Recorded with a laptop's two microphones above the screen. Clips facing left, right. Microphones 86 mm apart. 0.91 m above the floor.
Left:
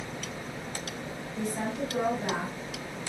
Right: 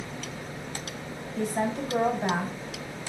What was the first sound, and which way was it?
A woman speaking, 40° right (ahead or behind).